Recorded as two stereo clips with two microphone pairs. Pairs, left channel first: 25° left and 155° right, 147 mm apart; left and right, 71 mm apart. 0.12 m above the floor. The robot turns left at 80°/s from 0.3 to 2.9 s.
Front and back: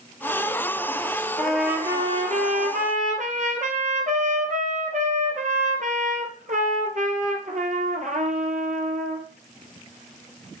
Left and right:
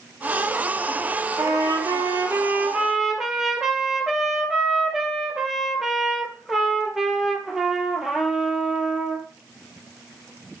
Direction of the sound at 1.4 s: 50° right.